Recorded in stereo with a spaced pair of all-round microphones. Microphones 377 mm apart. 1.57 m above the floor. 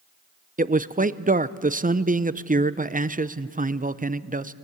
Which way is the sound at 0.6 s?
20° right (ahead or behind).